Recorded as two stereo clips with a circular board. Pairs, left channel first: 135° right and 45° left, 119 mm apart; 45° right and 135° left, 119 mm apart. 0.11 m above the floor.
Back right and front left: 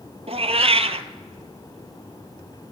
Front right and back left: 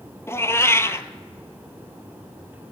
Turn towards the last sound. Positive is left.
turn(degrees=20)